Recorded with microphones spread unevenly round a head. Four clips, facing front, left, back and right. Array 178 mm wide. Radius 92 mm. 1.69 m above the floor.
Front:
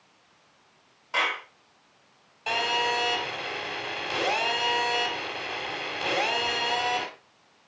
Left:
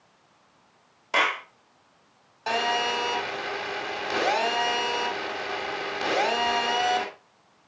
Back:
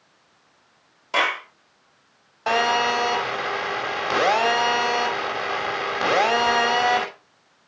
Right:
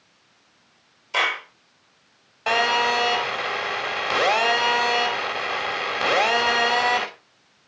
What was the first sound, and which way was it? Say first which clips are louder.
A clap: even, back 6 dB; 145° left.